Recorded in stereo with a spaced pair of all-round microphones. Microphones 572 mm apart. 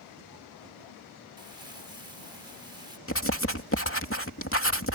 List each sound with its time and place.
1.4 s crumpling: 40° left (ahead or behind)
3.1 s writing: 20° left (ahead or behind)